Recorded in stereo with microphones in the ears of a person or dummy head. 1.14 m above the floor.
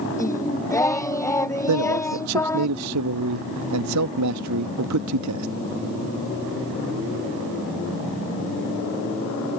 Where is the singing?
20° left (ahead or behind).